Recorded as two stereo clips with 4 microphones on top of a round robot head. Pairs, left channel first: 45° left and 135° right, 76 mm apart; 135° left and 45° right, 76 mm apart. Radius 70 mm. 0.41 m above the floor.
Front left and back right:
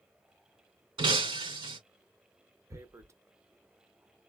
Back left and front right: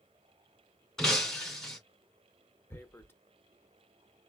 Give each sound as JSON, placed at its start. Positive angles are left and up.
{"t": 1.0, "sound": "breaking glass", "azimuth_deg": -145, "distance_m": 2.5}
{"t": 2.7, "sound": "tearing paper", "azimuth_deg": -175, "distance_m": 0.9}